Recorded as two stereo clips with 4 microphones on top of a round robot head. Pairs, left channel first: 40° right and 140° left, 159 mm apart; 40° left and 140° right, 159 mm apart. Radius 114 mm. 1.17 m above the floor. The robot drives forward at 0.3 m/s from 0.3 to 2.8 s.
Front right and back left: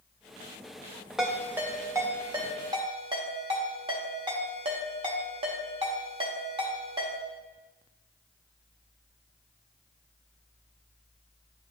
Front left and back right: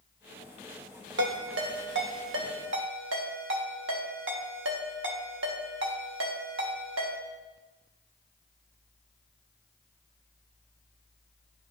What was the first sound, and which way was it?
A ringtone, 135° right.